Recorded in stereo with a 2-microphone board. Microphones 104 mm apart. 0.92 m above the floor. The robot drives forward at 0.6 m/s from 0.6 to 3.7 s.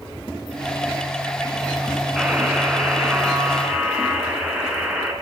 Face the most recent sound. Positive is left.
turn(degrees=-5)  # may be behind; listen again after turning